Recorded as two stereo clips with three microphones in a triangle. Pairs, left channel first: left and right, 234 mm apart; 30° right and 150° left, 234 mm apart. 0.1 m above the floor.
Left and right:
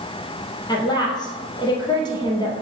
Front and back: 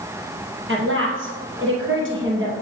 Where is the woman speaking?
160° left, 2 m.